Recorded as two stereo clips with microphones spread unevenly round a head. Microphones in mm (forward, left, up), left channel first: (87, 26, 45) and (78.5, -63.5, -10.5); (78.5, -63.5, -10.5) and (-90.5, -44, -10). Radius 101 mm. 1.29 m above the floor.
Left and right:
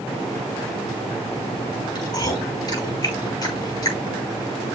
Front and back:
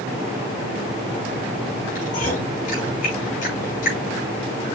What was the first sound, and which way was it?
Chewing, 50° left.